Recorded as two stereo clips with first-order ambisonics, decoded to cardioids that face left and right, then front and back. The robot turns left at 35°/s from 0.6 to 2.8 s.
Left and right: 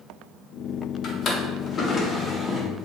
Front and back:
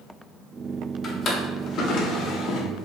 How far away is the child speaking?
No child speaking in this recording.